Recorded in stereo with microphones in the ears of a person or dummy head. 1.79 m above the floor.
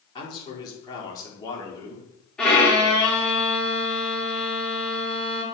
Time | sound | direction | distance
0.1 | a man speaking | 25° left (ahead or behind) | 5 m
2.4 | a violin | centre (ahead or behind) | 4 m